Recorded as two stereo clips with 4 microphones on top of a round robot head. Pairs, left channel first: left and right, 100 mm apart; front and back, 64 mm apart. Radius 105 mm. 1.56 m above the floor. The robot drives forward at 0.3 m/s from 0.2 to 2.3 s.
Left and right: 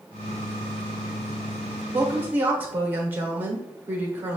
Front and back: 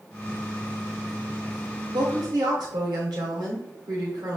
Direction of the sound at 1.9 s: 160° right.